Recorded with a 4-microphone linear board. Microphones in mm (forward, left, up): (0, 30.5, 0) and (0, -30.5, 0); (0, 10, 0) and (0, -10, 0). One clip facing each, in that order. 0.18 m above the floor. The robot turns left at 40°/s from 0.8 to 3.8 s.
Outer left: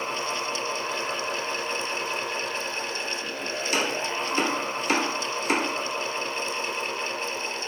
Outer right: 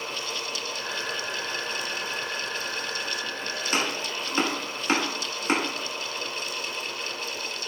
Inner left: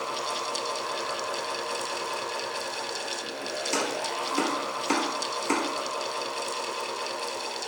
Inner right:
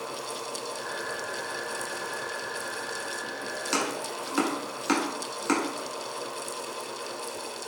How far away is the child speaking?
I don't hear a child speaking.